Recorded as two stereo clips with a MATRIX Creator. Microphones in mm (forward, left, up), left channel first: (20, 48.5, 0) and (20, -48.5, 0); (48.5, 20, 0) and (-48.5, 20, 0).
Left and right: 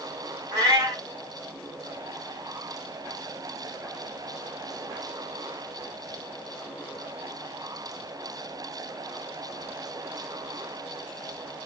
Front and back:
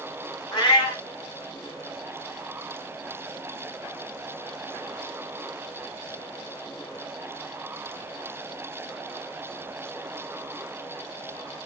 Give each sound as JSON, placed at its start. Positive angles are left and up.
{"t": 0.5, "sound": "a cat meowing", "azimuth_deg": -40, "distance_m": 1.7}